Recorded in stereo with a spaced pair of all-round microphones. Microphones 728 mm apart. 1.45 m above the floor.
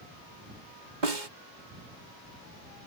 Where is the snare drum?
85° right.